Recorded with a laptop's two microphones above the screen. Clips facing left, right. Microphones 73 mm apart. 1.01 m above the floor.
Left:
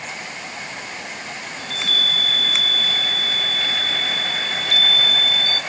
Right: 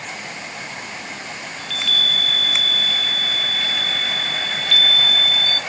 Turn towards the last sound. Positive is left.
turn(degrees=35)  # may be behind; listen again after turning